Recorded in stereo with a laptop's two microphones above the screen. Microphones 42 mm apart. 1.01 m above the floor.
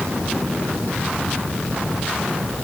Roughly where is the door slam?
No door slam in this recording.